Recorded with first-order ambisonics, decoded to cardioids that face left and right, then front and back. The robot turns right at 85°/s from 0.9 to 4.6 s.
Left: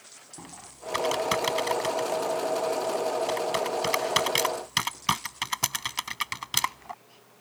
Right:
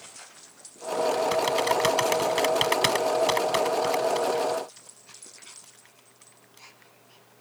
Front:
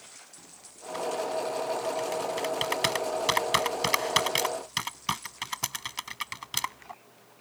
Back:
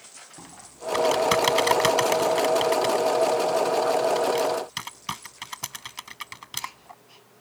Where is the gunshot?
I don't hear a gunshot.